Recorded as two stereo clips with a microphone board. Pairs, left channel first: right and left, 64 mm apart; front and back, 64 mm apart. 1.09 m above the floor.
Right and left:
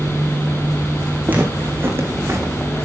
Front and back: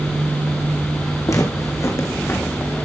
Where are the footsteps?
25° left, 3 m; by 2.5 s 50° left, 3 m.